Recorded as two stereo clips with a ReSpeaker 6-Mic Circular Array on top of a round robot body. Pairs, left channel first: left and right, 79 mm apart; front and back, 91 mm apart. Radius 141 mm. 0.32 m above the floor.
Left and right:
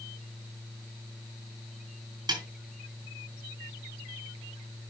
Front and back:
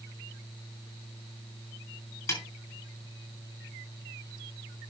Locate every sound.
2.3 s a snare drum: 60° right, 5.5 m